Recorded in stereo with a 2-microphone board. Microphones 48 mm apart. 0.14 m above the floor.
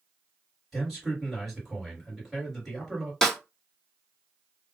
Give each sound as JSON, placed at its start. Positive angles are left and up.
{"t": 0.7, "sound": "a man speaking", "side_deg": 0, "distance_m": 1.9}
{"t": 3.2, "sound": "a snare drum", "side_deg": 10, "distance_m": 1.6}